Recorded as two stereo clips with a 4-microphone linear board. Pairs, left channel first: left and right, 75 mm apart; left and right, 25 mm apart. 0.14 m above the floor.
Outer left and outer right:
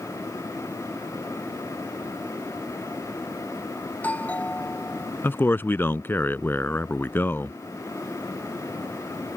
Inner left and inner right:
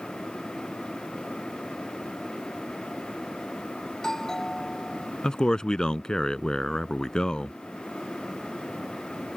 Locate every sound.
3.9 s a doorbell: 15° left (ahead or behind)
5.2 s a man speaking: 25° left (ahead or behind)